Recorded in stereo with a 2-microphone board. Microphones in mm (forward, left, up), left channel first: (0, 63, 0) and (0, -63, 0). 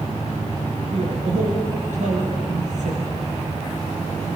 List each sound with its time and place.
0.9 s a man speaking: 65° right (ahead or behind), 6 m